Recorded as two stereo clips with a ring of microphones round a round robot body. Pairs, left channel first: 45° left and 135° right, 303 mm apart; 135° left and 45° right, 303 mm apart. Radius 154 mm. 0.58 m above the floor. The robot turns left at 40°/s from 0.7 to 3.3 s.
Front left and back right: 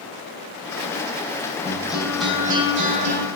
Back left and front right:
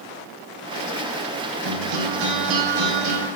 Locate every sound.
1.6 s a guitar: 25° right, 4 m; by 3.2 s 85° right, 4 m